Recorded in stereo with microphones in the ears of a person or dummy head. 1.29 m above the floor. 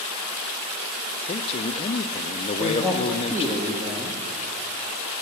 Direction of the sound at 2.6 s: 15° right (ahead or behind).